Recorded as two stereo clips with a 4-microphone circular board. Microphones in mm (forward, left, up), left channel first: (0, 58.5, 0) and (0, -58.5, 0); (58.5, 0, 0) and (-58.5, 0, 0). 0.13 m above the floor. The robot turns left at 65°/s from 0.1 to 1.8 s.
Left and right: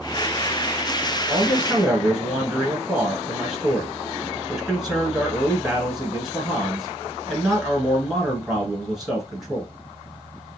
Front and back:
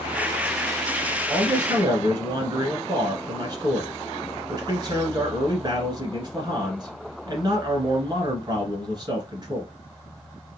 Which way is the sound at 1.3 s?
140° right.